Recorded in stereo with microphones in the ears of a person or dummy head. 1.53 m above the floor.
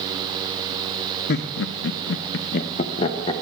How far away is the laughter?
About 0.7 m.